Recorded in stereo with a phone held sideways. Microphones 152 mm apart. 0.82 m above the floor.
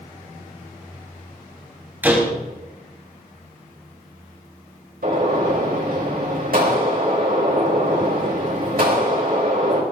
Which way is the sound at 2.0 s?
10° right (ahead or behind).